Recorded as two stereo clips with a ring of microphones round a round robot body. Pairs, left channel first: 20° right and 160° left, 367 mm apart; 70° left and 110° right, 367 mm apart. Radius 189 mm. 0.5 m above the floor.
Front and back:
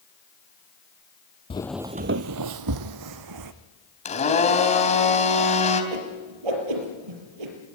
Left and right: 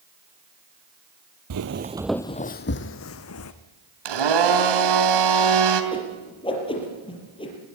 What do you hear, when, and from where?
1.5 s footsteps: 90° right, 0.6 m; by 3.5 s 120° left, 1.5 m
4.0 s a blender: 95° right, 3 m
5.9 s a whoosh: 145° left, 5 m